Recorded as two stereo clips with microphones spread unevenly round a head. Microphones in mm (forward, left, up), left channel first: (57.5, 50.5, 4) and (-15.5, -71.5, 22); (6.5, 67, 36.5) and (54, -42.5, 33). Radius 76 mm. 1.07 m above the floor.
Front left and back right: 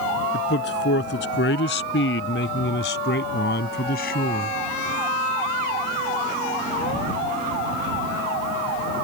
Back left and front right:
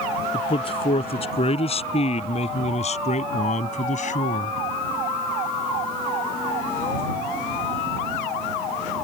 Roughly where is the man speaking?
Left.